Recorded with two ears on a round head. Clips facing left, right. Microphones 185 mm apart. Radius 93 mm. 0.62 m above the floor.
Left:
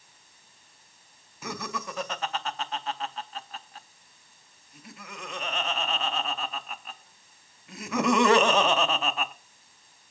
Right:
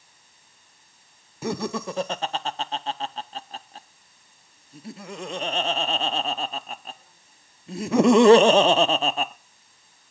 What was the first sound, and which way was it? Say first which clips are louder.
Laughter: right 8 dB; 25° right (ahead or behind).